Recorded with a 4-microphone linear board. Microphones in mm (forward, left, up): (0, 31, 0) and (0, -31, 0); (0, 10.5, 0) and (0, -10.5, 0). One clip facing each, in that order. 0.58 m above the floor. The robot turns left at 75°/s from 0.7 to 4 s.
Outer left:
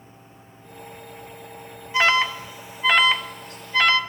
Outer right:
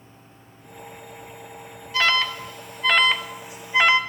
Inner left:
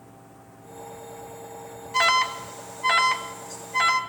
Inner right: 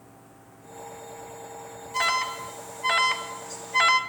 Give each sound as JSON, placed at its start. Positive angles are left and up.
{"t": 1.9, "sound": "an alarm", "side_deg": 20, "distance_m": 1.4}